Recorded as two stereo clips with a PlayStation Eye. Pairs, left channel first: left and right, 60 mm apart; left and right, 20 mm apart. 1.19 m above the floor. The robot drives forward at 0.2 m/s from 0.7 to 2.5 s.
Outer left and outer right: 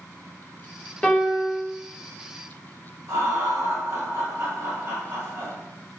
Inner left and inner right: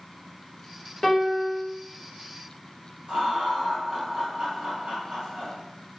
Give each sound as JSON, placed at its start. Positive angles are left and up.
{"t": 1.0, "sound": "a piano", "side_deg": 15, "distance_m": 0.6}
{"t": 3.1, "sound": "laughter", "side_deg": -50, "distance_m": 1.7}